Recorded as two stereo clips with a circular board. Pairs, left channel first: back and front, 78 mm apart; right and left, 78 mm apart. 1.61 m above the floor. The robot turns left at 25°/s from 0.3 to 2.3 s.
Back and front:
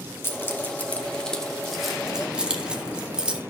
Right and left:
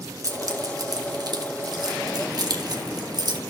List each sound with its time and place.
0.2 s keys jangling: 125° left, 1.3 m; by 3.4 s 75° left, 1.3 m